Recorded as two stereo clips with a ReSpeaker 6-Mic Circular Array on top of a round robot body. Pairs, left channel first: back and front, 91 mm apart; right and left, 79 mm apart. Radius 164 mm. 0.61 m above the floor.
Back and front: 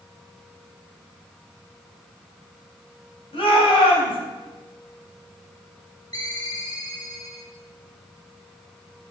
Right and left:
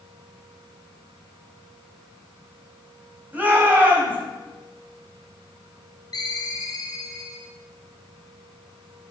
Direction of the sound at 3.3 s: 160° left.